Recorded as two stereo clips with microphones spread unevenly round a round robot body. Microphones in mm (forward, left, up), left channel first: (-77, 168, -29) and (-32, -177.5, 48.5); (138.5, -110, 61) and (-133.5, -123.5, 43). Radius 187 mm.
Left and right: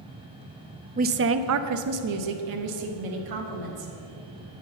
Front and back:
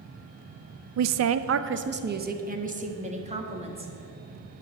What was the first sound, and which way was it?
A woman speaking, 155° right.